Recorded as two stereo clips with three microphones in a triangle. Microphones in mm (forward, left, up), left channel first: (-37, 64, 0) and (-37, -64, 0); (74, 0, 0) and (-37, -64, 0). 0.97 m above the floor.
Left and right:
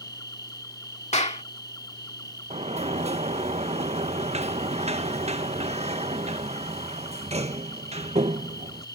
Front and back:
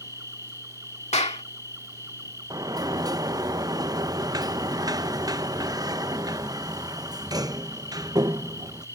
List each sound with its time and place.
0.0 s an insect: 150° left
1.1 s a clap: 60° left
2.5 s a sliding door: 95° right